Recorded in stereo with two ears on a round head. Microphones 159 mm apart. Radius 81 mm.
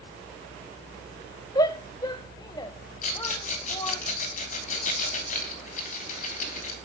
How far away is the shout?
About 0.7 m.